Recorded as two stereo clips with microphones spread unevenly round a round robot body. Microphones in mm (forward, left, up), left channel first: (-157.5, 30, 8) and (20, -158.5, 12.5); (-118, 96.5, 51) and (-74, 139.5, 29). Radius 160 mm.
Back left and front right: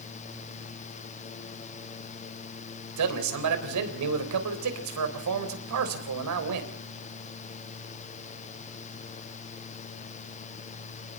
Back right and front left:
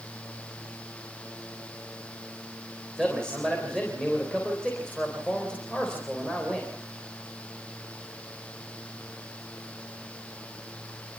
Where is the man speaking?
45° right, 3.5 m.